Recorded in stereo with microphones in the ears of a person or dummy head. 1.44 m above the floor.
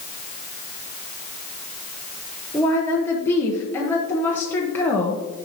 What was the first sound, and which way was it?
A woman speaking, 15° left (ahead or behind).